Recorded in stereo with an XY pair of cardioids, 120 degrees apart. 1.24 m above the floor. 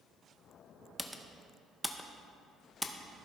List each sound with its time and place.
1.0 s typing on a keyboard: 5° left, 0.6 m